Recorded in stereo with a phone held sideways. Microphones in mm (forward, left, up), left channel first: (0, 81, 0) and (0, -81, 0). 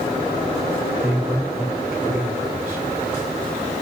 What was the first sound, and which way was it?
A man speaking, 10° right (ahead or behind).